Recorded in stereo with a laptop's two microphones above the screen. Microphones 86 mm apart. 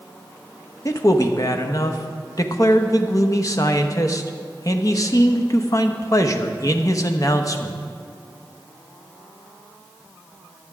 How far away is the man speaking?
About 1.0 m.